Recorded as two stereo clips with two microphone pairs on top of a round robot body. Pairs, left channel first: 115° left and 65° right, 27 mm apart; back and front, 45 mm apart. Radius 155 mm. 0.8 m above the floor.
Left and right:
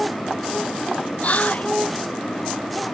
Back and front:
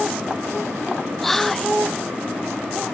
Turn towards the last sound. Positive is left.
turn(degrees=95)